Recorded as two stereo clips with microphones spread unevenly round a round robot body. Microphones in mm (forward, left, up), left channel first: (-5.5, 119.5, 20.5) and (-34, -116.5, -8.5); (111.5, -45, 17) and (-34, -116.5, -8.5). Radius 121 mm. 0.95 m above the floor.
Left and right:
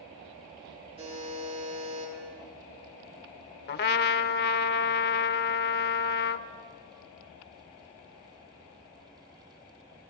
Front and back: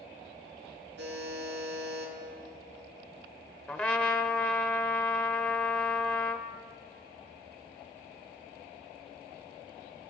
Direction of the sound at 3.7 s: 100° left.